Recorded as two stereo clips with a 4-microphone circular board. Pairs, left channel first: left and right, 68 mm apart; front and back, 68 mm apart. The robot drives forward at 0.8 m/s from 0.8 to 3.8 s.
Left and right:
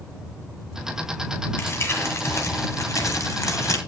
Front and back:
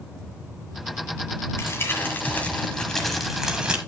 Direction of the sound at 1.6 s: 45° left.